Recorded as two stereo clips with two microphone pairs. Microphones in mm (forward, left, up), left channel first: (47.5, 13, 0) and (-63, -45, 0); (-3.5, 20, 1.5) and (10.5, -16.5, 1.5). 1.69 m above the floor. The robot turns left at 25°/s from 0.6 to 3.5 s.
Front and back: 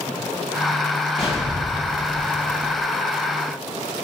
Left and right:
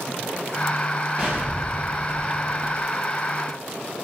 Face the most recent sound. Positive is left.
turn(degrees=-75)